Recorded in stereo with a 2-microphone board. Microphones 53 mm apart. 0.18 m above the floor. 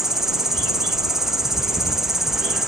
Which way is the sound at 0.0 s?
10° right (ahead or behind).